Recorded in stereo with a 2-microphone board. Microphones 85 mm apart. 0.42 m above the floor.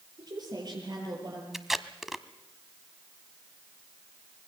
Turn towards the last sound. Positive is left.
turn(degrees=-5)  # may be behind; listen again after turning